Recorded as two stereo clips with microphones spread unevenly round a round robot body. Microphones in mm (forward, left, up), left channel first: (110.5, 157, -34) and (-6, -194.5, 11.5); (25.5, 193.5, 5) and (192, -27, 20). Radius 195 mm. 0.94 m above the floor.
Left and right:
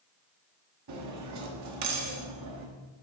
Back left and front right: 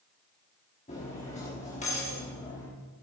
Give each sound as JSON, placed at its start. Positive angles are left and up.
{"t": 0.9, "sound": "cutlery clinking", "azimuth_deg": -160, "distance_m": 1.1}